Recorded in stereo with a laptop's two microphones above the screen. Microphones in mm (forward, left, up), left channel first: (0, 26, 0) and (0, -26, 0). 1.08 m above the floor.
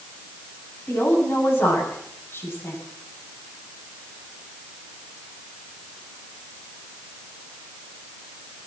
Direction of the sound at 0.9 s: 50° left (ahead or behind).